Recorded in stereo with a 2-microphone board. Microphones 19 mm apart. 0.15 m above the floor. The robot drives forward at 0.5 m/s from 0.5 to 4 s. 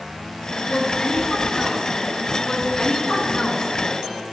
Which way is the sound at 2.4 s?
35° left (ahead or behind).